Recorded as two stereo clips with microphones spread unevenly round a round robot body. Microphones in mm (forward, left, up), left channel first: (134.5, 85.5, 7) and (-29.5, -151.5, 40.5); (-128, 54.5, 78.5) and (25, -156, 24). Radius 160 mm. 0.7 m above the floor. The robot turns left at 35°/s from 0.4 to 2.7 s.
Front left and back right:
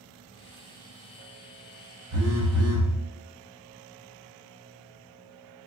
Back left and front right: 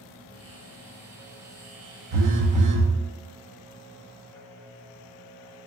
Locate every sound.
2.1 s a phone buzzing: 80° right, 0.8 m; by 2.9 s 100° right, 0.8 m